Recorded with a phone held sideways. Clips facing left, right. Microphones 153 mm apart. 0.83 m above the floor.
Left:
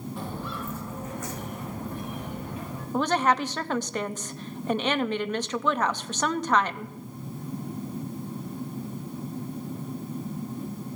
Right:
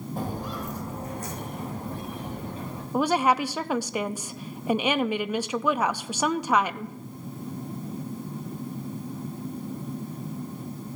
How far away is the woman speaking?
About 0.6 m.